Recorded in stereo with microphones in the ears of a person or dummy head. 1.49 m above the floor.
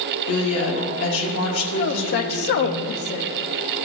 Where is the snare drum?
No snare drum in this recording.